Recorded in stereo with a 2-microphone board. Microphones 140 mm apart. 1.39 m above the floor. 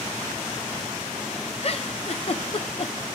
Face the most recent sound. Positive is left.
turn(degrees=45)  # may be behind; listen again after turning